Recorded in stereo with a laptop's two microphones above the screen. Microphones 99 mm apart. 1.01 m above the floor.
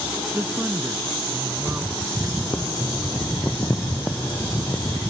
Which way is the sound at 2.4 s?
20° left (ahead or behind).